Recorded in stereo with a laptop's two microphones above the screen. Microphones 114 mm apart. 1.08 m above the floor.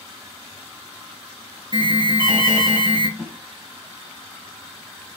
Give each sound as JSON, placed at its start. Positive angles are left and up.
{"t": 1.7, "sound": "an alarm", "side_deg": -45, "distance_m": 1.0}
{"t": 3.2, "sound": "a snare drum", "side_deg": -15, "distance_m": 1.1}